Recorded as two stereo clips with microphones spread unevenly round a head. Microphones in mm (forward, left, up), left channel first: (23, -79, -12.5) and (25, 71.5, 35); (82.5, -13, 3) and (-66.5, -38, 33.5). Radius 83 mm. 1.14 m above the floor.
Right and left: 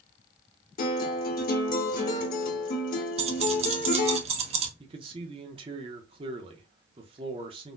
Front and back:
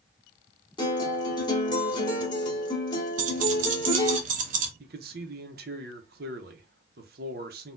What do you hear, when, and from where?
0.8 s a guitar: 55° right, 1.3 m
3.2 s keys jangling: 145° left, 0.6 m
4.8 s a man speaking: 155° left, 0.7 m